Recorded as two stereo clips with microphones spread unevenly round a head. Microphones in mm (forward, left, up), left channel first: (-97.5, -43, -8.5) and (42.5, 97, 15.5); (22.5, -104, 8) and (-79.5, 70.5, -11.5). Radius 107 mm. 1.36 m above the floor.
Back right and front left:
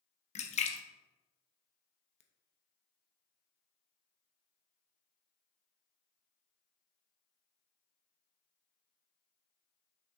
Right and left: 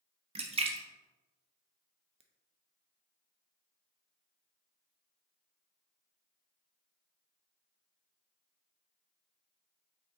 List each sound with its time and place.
0.3 s a splash: 175° left, 0.9 m